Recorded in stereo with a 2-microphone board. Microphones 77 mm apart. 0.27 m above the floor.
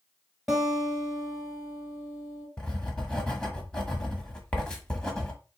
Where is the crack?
No crack in this recording.